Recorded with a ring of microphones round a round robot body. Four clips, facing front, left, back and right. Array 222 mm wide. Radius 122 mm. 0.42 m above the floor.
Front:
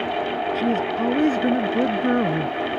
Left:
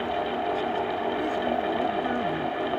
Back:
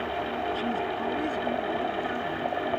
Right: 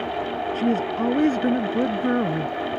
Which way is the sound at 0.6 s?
55° right.